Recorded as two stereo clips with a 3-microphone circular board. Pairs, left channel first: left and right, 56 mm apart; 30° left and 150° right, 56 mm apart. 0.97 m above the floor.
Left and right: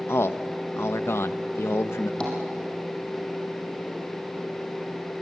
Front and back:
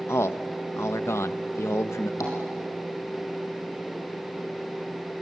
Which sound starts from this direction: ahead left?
A man speaking, at 0.1 s.